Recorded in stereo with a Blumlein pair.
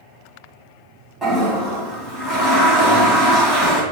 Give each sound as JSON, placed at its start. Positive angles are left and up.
{"t": 1.2, "sound": "a toilet flushing", "azimuth_deg": -10, "distance_m": 1.8}